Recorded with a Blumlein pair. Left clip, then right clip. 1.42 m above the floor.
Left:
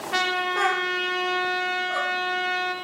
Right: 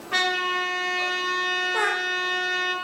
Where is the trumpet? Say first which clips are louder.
Right 1 dB; 35° right, 1.8 m.